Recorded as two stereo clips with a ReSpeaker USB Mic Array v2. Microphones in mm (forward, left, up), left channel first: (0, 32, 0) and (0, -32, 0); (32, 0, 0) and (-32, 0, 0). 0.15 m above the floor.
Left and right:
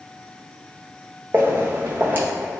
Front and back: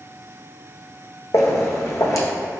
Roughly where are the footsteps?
Ahead right.